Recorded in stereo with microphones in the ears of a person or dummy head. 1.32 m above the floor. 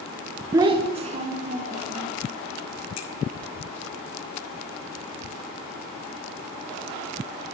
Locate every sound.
0.5 s a child speaking: 25° right (ahead or behind), 0.6 m; by 2.1 s 50° right (ahead or behind), 2 m
3.0 s a finger snap: 80° left, 1.4 m